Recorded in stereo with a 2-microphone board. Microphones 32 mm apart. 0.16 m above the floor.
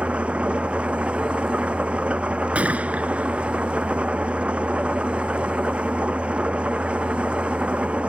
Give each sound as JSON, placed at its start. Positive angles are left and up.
{"t": 0.0, "sound": "an engine running", "side_deg": -40}
{"t": 2.5, "sound": "a gunshot", "side_deg": -50}